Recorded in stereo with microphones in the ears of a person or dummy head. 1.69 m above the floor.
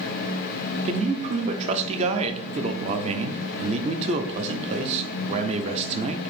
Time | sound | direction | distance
0.8 | a man speaking | 35° right (ahead or behind) | 0.6 m